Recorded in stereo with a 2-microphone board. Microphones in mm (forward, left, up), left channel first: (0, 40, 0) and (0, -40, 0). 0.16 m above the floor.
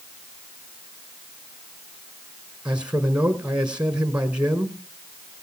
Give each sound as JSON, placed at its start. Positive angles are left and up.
{"t": 2.6, "sound": "a man speaking", "side_deg": -15, "distance_m": 1.5}